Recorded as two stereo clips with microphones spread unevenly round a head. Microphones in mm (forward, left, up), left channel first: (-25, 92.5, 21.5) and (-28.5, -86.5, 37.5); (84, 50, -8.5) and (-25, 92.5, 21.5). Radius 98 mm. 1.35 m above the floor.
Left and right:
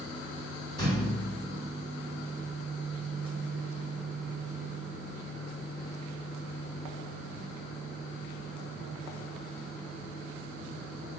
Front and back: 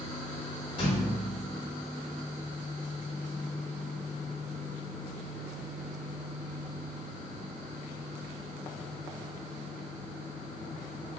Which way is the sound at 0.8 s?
20° left.